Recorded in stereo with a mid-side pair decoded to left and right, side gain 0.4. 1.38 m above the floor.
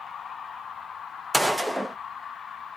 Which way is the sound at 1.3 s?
10° right.